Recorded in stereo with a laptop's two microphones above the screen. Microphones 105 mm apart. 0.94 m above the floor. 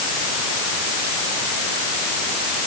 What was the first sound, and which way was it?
Only background noise.